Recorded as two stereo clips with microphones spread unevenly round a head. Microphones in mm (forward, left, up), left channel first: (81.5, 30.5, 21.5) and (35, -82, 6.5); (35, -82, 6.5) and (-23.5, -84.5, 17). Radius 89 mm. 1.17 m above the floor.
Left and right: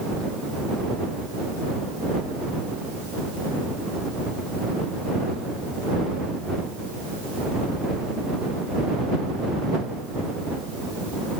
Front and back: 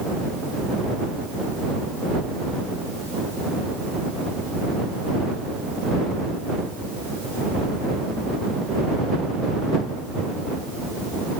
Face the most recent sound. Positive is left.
No sound to turn to.